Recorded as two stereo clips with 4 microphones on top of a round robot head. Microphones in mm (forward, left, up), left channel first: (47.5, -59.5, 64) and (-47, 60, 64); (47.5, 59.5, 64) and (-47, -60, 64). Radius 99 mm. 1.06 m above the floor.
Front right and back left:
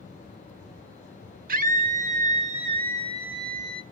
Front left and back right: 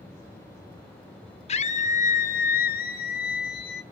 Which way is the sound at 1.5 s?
100° left.